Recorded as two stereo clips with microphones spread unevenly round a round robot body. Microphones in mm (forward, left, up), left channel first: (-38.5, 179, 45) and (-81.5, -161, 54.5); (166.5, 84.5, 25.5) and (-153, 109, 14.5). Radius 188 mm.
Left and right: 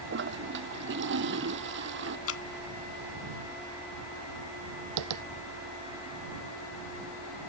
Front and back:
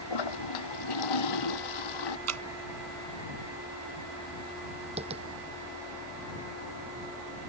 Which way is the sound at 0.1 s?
35° right.